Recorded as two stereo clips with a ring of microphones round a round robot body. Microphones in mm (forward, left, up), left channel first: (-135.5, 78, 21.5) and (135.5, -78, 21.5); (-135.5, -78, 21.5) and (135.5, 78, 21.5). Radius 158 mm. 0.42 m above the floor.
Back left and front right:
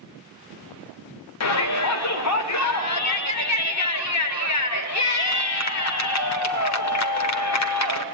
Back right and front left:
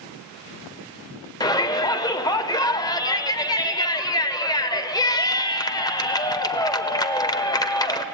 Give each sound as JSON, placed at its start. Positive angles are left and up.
{"t": 1.4, "sound": "a shout", "azimuth_deg": 135, "distance_m": 1.2}